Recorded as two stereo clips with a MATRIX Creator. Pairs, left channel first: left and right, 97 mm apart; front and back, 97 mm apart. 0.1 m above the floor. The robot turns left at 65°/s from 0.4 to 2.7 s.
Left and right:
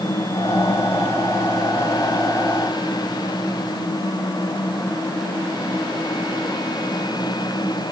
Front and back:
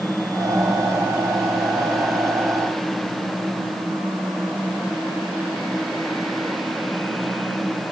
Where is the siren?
I don't hear a siren.